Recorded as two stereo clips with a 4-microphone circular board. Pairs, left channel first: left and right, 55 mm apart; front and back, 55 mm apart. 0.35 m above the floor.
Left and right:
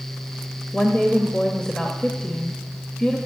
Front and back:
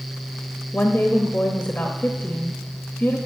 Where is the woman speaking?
25° left, 1.1 m.